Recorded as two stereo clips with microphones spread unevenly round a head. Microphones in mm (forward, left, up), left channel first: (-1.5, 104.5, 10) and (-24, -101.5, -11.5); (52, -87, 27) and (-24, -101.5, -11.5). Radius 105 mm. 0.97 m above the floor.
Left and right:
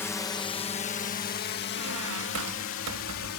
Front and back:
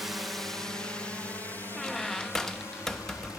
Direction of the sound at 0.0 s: 165° left.